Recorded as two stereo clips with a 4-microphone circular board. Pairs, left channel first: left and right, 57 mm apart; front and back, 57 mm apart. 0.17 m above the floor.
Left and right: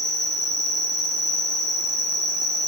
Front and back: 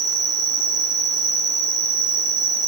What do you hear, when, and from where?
0.0 s an insect: straight behind, 1.7 m